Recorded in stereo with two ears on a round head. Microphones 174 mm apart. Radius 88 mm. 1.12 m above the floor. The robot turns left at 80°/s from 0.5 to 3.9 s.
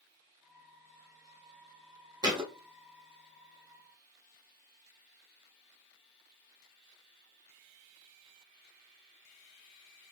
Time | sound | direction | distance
2.2 | a thud | 20° right (ahead or behind) | 1.1 m